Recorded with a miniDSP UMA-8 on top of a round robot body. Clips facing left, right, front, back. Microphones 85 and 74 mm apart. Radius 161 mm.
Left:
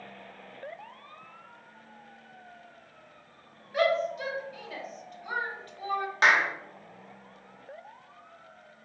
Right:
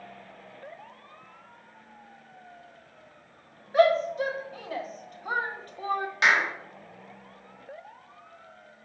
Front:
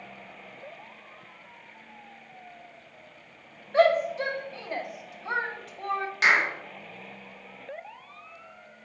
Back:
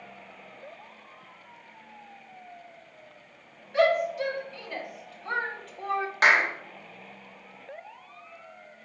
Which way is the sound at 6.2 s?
140° left.